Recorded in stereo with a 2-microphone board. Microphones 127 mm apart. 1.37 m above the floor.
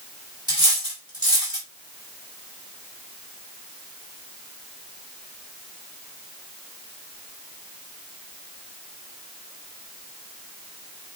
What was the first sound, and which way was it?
Cutlery clinking, 35° right (ahead or behind).